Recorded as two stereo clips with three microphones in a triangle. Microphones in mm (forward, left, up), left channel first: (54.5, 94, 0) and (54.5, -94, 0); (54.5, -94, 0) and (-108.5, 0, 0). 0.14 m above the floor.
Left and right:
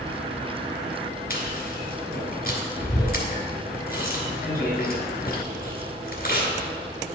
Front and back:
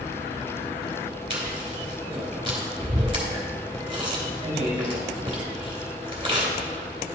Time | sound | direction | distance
1.3 | chewing | 100° left | 2.5 m